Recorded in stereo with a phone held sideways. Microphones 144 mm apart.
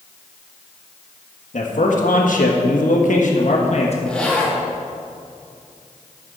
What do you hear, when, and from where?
1.5 s a man speaking: 70° left (ahead or behind), 1.6 m; by 4.0 s 50° left (ahead or behind), 1.2 m
4.1 s a zipper: 5° left (ahead or behind), 2 m